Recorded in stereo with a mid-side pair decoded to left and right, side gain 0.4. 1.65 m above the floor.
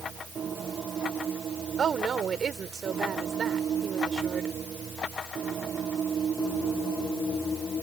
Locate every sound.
1.8 s a woman speaking: 50° right